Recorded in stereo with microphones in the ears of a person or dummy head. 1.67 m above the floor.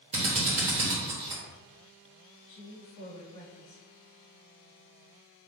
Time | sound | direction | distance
0.1 | a drill | 35° right (ahead or behind) | 0.9 m
2.5 | a woman speaking | 70° left (ahead or behind) | 1.2 m